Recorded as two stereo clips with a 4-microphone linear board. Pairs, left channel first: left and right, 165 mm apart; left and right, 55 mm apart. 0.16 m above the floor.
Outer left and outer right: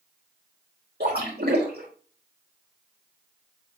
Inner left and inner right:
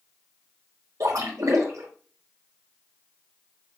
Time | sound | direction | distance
1.0 | a splash | 75° right (ahead or behind) | 4.5 m